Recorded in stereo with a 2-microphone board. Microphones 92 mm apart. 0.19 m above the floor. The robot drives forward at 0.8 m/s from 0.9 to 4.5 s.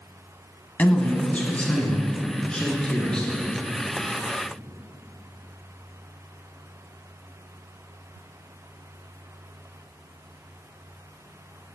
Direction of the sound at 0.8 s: 15° left (ahead or behind).